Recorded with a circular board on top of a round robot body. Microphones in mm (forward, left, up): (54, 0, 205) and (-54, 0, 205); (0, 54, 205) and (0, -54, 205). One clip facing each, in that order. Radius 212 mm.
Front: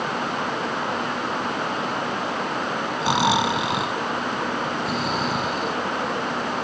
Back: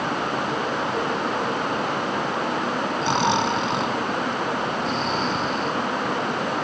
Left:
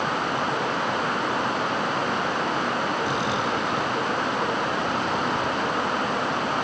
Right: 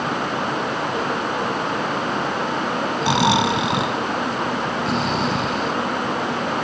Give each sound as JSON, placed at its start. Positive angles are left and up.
{"t": 3.0, "sound": "snoring", "azimuth_deg": -80}